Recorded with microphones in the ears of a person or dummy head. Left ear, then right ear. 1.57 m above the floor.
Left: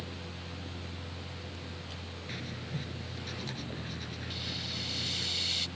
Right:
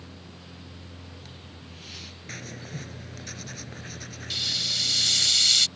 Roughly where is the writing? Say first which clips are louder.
Right 2 dB; right.